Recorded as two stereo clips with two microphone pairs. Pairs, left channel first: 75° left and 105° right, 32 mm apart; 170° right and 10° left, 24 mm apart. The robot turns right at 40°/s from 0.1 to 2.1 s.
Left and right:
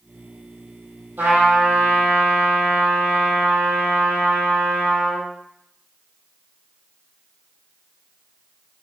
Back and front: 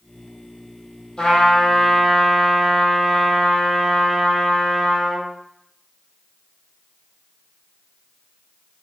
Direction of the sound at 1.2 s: 115° right.